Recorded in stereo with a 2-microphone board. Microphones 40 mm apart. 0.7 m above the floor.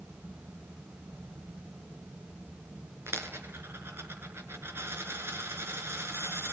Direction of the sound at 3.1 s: 70° right (ahead or behind).